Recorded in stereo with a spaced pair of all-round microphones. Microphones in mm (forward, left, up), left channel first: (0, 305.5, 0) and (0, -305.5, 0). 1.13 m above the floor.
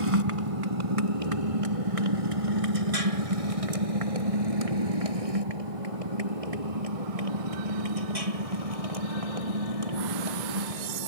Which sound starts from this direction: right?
A motorcycle, at 0.0 s.